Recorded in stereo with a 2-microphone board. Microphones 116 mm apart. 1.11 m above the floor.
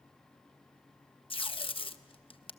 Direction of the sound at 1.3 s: 50° left (ahead or behind).